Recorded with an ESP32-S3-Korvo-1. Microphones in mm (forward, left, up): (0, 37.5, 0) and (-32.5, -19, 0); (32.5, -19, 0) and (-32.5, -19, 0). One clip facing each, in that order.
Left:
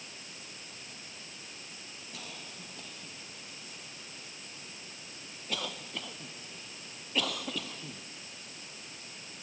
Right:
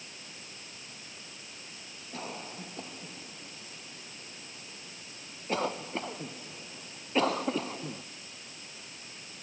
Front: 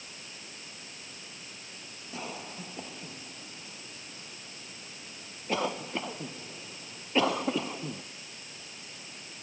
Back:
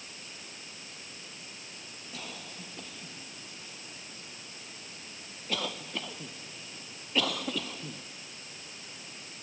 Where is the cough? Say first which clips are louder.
Right 8 dB, front 5 dB; 65° right.